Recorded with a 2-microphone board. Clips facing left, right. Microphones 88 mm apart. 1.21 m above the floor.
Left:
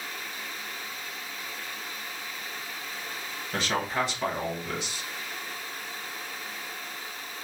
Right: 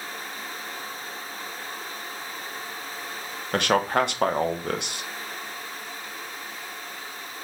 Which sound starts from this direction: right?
A man speaking, at 3.5 s.